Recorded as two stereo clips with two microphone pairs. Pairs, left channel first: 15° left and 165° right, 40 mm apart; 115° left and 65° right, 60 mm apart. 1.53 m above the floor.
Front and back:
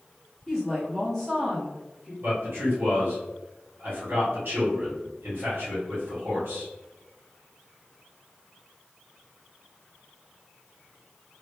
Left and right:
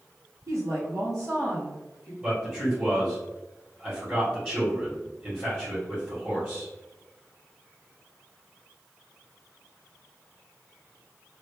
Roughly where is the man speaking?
Behind right.